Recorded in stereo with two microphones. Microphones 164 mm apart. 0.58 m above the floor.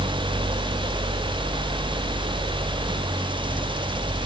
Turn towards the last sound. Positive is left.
No sound to turn to.